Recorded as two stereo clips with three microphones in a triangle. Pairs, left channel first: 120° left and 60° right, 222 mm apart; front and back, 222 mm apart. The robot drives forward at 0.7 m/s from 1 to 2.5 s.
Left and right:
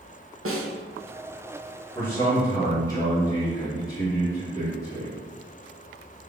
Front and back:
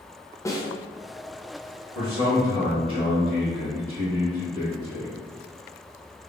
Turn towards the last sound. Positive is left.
turn(degrees=-165)